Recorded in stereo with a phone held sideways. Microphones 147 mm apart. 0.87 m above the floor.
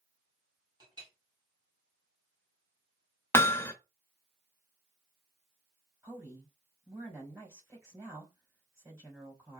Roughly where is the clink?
Right.